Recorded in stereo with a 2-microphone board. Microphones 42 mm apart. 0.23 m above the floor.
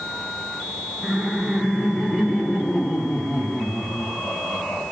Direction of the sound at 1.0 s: 5° left (ahead or behind).